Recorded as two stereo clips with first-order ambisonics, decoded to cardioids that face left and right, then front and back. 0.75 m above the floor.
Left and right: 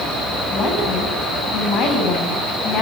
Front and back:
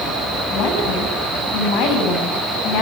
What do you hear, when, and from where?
0.5 s a woman speaking: 30° left, 6.5 m